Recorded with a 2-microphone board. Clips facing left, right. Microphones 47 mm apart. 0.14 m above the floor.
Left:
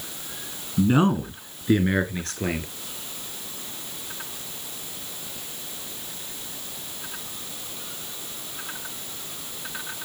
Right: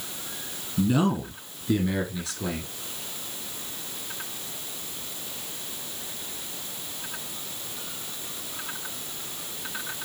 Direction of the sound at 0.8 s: 35° left (ahead or behind).